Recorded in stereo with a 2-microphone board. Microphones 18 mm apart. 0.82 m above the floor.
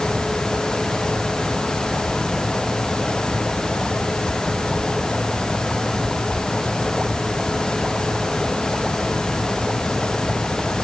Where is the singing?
No singing in this recording.